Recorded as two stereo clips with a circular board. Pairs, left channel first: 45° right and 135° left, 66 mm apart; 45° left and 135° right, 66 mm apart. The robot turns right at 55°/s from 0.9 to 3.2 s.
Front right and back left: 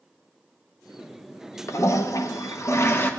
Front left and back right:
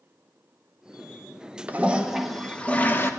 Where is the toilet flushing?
80° right, 0.8 m; by 3.1 s straight ahead, 0.8 m.